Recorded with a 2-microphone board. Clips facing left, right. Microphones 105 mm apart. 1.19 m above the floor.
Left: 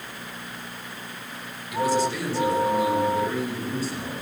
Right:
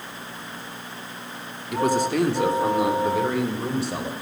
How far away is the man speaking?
About 3 m.